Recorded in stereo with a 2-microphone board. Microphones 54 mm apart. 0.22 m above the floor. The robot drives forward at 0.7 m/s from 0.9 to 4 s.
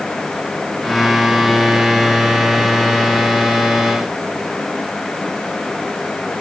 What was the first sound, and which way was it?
Only background noise.